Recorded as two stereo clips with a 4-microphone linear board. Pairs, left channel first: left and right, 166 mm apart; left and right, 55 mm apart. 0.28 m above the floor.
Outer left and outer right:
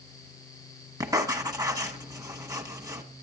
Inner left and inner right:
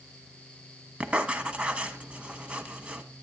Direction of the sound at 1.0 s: 20° right (ahead or behind).